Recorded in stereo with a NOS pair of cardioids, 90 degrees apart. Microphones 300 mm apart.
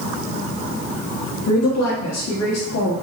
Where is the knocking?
No knocking in this recording.